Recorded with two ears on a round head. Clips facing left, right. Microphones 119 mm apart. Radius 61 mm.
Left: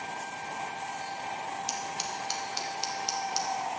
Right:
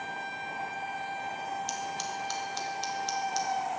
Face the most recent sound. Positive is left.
turn(degrees=5)  # may be behind; listen again after turning